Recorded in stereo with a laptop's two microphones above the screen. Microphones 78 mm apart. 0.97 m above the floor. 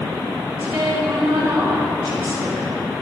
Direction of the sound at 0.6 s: 25° right (ahead or behind).